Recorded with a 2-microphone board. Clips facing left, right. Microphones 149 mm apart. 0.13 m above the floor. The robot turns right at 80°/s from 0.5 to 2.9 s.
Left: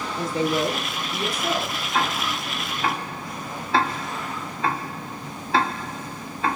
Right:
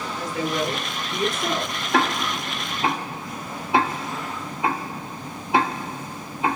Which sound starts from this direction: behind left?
A woman speaking, at 0.2 s.